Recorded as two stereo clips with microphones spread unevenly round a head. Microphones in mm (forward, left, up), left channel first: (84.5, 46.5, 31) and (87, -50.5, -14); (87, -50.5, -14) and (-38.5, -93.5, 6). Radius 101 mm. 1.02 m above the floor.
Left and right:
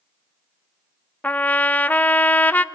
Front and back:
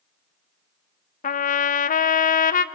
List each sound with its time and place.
1.2 s a trumpet: 10° left, 0.7 m